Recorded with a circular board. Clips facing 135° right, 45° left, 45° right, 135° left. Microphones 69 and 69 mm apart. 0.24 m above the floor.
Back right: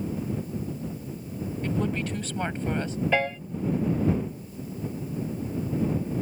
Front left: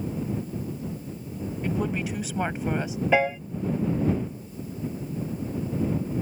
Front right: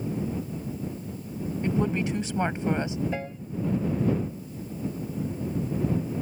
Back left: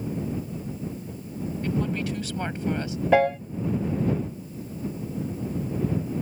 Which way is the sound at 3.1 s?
120° left.